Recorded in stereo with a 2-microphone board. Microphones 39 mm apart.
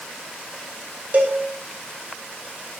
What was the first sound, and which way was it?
A cowbell, 40° right (ahead or behind).